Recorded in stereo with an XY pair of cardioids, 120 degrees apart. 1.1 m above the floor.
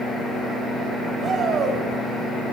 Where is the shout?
45° right, 5 m.